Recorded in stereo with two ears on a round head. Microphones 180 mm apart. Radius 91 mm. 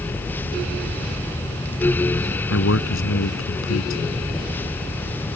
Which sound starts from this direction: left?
A man speaking, at 2.5 s.